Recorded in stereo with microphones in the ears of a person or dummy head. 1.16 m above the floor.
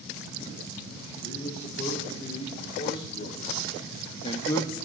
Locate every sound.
1.2 s a man speaking: 55° left (ahead or behind), 2 m; by 4.8 s centre (ahead or behind), 0.5 m